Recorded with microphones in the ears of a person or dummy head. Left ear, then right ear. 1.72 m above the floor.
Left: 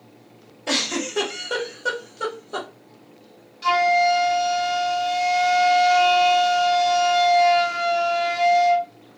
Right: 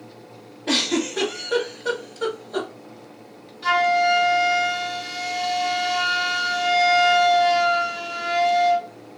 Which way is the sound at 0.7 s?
80° left.